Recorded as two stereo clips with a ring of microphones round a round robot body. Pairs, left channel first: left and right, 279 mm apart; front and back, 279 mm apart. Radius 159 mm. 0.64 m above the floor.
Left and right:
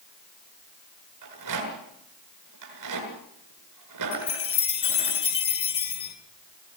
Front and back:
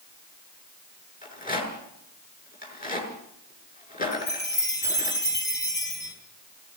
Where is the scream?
I don't hear a scream.